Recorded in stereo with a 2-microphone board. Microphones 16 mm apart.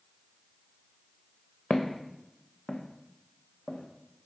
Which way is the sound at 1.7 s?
75° left (ahead or behind).